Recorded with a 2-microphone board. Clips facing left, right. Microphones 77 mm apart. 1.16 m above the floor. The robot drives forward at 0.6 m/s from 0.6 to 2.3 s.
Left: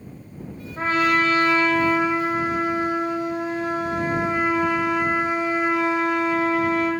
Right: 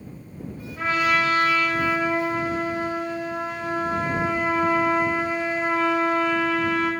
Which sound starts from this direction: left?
A trumpet, at 0.8 s.